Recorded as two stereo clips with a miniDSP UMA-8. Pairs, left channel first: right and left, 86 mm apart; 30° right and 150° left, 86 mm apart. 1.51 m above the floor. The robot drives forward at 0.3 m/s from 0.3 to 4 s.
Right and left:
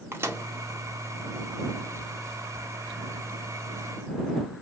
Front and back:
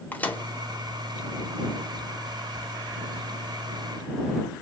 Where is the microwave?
35° left, 1.0 m.